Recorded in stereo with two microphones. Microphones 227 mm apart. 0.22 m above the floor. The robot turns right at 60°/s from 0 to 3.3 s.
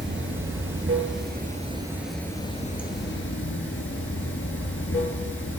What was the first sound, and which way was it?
Running water, 125° right.